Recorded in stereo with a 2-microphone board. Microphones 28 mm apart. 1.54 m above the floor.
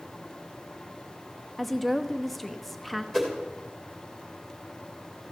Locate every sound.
1.6 s a woman speaking: 10° left (ahead or behind), 0.7 m
3.1 s a whoosh: 10° left (ahead or behind), 3.5 m